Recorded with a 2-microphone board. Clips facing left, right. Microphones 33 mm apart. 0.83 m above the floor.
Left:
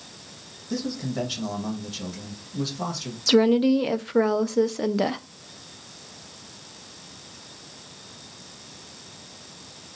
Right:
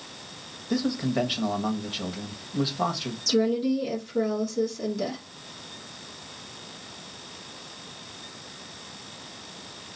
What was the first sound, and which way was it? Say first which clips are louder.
A man speaking: right 3 dB; 30° right (ahead or behind).